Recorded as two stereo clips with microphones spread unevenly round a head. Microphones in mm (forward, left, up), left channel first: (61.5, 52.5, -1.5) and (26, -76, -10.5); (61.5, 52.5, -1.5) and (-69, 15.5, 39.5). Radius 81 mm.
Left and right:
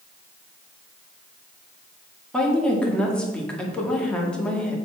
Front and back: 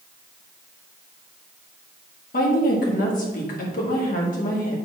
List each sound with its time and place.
2.3 s a woman speaking: 10° right, 2 m